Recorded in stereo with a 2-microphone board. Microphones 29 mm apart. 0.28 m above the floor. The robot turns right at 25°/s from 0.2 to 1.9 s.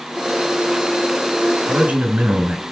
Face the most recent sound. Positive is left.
turn(degrees=-50)  # may be behind; listen again after turning